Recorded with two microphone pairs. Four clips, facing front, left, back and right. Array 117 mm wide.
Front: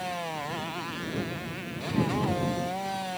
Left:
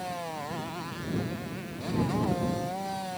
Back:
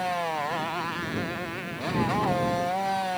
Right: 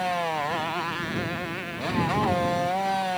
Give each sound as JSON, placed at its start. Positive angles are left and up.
{"t": 0.0, "sound": "a motorcycle", "azimuth_deg": -130}